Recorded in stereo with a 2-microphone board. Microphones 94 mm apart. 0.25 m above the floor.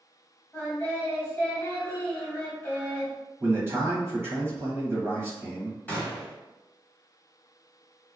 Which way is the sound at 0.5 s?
20° left (ahead or behind).